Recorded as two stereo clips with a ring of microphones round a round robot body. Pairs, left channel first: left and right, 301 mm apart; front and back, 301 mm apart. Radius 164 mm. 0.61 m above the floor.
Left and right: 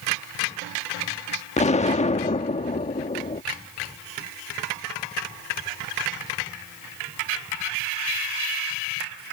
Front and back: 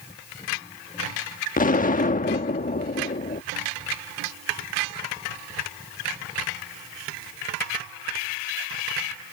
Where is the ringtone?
I don't hear a ringtone.